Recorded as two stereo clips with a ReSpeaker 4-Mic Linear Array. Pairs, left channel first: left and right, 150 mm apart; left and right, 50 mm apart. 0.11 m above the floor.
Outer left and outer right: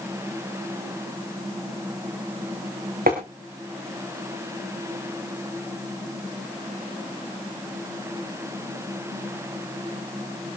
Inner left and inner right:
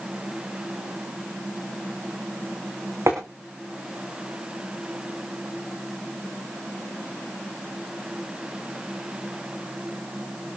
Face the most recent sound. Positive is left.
turn(degrees=-75)  # may be behind; listen again after turning